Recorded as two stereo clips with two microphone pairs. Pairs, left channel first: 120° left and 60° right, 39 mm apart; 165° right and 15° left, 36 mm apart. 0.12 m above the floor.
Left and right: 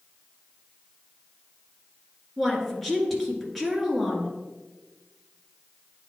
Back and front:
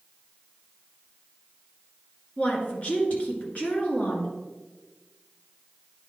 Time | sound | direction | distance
2.4 | a woman speaking | 150° right | 1.9 m